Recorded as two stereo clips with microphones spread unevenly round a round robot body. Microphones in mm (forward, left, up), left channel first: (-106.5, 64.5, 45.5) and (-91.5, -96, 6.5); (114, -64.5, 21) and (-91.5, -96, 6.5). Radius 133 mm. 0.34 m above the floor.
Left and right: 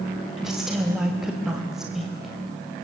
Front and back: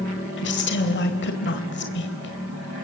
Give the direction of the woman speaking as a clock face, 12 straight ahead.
12 o'clock.